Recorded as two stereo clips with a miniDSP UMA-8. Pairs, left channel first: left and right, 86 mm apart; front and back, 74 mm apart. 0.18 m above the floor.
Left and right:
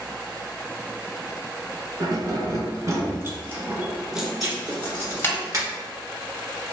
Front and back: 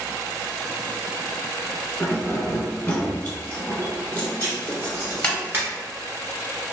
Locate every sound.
2.0 s keys jangling: 70° right, 1.5 m; by 5.4 s 65° left, 1.1 m
4.4 s writing: 125° right, 1.5 m